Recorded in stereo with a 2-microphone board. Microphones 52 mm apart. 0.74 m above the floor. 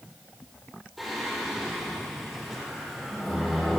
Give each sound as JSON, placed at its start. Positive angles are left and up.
{"t": 1.0, "sound": "singing", "side_deg": -5, "distance_m": 6.5}